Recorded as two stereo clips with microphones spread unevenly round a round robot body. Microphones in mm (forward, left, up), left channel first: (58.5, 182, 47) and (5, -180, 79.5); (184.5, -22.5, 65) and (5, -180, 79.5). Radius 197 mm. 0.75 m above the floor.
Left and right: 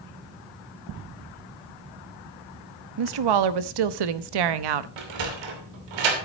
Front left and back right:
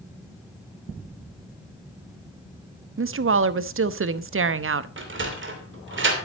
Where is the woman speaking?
105° right, 1.0 m.